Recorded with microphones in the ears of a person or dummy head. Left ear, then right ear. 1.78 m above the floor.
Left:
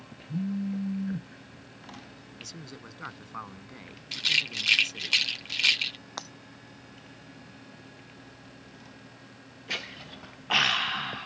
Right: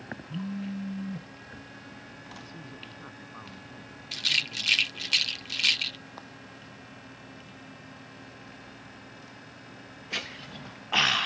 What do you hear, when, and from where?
0.3 s a phone buzzing: 35° left (ahead or behind)
2.4 s a man speaking: 65° left (ahead or behind)
4.1 s a rattle: 15° left (ahead or behind)
6.2 s breaking glass: 70° left (ahead or behind)